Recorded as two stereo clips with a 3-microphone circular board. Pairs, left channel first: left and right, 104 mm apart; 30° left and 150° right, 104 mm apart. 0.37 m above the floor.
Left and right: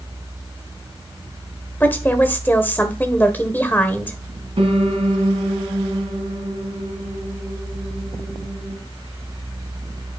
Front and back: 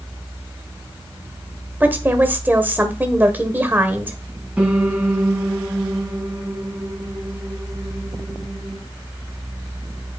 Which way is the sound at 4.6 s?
75° right.